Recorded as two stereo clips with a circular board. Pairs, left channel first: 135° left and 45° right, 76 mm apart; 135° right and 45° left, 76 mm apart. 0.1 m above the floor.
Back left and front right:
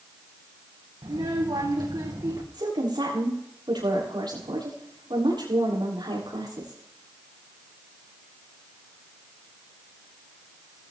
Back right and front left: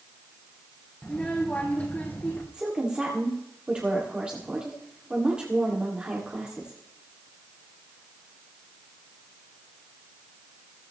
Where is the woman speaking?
35° right, 7.5 m.